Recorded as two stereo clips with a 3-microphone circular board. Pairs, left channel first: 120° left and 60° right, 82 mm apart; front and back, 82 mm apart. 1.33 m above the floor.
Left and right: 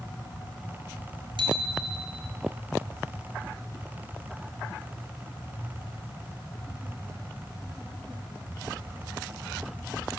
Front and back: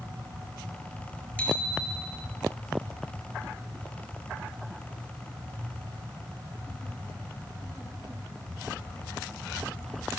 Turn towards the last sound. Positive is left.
turn(degrees=-75)